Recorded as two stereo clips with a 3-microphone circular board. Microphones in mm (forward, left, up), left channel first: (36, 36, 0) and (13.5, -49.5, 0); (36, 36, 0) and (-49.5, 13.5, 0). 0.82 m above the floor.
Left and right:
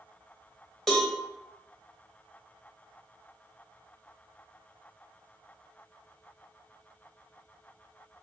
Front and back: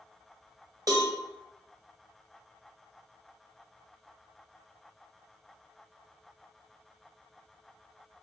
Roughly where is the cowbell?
Behind.